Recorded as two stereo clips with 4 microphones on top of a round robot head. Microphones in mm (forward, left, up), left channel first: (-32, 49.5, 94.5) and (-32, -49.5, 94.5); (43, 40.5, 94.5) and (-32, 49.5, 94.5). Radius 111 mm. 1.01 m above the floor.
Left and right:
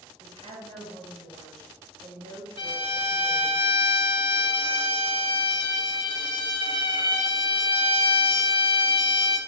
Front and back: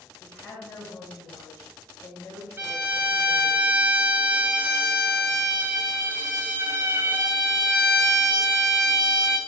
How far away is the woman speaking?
About 1.2 m.